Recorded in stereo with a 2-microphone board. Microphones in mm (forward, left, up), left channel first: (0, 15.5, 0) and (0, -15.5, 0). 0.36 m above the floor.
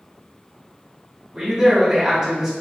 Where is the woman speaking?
15° right (ahead or behind), 1.1 m.